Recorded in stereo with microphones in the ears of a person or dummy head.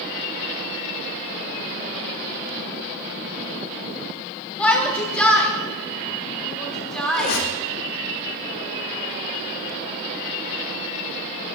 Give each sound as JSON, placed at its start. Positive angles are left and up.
{"t": 4.6, "sound": "a shout", "side_deg": 10, "distance_m": 2.5}
{"t": 7.1, "sound": "a squeak", "side_deg": 55, "distance_m": 3.0}